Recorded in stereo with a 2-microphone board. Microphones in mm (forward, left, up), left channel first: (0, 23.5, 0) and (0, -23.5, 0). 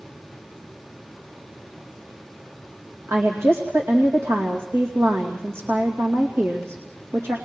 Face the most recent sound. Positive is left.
turn(degrees=-85)